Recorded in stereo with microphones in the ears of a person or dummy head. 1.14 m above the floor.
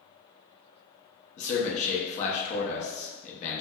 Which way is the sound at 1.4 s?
35° left (ahead or behind).